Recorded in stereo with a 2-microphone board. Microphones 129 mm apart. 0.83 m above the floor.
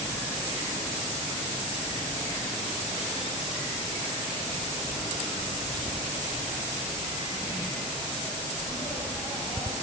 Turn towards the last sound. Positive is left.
No sound to turn to.